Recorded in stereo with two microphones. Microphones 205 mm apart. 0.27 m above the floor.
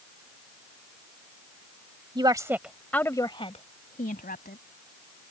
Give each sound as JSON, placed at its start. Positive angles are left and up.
{"t": 2.1, "sound": "a woman speaking", "side_deg": -25}